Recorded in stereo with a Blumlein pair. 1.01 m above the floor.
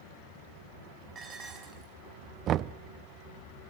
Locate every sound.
1.1 s dishes clattering: 25° right, 5.5 m
2.5 s knocking: 30° right, 0.6 m